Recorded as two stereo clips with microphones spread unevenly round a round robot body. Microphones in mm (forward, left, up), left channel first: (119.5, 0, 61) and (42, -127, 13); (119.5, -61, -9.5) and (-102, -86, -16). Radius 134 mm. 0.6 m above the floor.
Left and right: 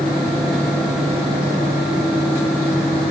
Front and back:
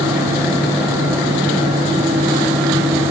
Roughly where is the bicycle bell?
I don't hear a bicycle bell.